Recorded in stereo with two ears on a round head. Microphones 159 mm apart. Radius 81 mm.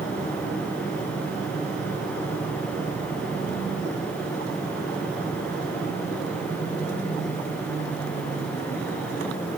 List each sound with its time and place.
Only background noise.